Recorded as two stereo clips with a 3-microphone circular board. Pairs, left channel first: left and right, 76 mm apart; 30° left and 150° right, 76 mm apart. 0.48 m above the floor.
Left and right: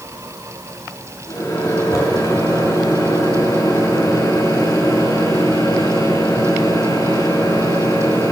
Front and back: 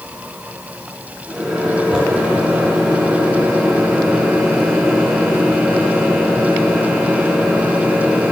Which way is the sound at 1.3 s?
135° left.